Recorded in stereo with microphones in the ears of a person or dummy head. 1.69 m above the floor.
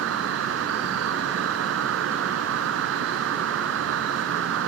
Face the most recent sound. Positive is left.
turn(degrees=-85)